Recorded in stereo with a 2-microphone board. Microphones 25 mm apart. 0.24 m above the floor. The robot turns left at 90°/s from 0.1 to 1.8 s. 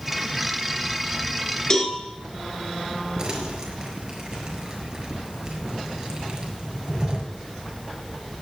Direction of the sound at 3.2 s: 20° right (ahead or behind).